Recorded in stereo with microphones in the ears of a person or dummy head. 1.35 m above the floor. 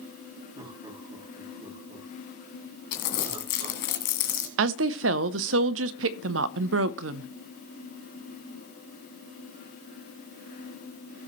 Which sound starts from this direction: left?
Crumpling, at 2.9 s.